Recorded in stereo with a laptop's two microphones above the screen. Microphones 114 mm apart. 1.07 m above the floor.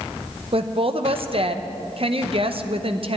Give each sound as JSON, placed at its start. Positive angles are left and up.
{"t": 0.5, "sound": "a woman speaking", "side_deg": -55, "distance_m": 0.7}